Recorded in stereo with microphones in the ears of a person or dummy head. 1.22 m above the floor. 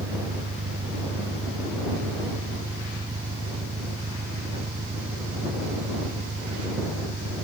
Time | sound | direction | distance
0.0 | an engine running | 20° right (ahead or behind) | ?